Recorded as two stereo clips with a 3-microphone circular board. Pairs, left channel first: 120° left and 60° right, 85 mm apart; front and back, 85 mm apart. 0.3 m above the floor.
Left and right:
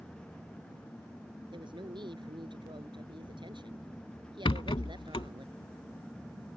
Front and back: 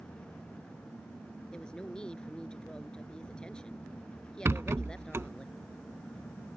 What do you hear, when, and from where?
1.5 s a woman speaking: 80° right
4.5 s a rattle: 120° left